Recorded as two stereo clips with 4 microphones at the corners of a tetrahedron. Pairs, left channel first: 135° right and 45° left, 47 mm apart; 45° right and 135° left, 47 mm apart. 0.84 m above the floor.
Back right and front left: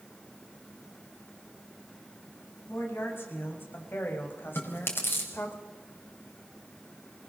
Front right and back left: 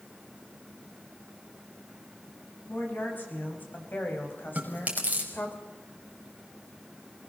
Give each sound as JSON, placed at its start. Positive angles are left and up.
{"t": 2.7, "sound": "a woman speaking", "azimuth_deg": -100, "distance_m": 6.5}
{"t": 4.5, "sound": "chewing", "azimuth_deg": -170, "distance_m": 4.5}